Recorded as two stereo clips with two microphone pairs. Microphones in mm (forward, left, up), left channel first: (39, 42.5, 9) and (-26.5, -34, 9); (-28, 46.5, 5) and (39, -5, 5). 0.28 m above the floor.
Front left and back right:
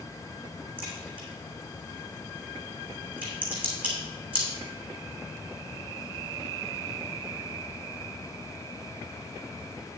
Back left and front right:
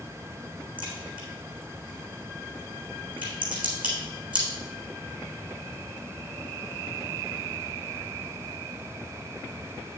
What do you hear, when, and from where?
0.8 s a crack: 55° right, 3 m